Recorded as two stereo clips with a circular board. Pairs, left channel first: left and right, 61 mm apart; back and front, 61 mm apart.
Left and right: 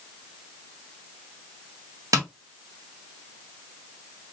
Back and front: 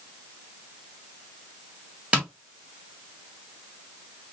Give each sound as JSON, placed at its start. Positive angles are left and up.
{"t": 2.1, "sound": "tapping", "azimuth_deg": -70, "distance_m": 1.5}